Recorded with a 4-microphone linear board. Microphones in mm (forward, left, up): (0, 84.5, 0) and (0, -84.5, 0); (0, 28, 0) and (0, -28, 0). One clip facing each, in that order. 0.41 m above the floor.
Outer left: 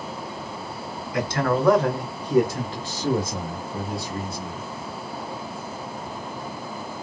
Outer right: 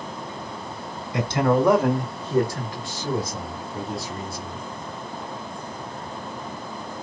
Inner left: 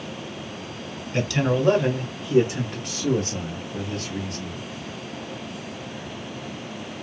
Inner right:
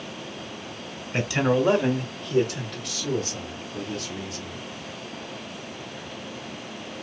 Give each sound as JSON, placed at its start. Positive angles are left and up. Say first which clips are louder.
{"t": 1.1, "sound": "a man speaking", "louder": "outer right 3 dB, inner right 1 dB", "side_deg": -30, "distance_m": 1.2}